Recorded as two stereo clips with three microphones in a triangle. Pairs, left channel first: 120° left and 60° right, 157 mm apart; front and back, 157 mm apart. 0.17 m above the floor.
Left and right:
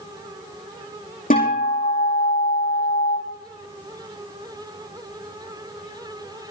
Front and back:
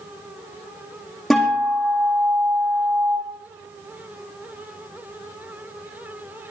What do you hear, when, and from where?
1.3 s a guitar: 90° left, 6 m